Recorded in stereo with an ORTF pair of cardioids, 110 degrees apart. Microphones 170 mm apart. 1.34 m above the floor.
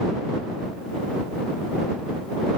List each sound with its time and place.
Only background noise.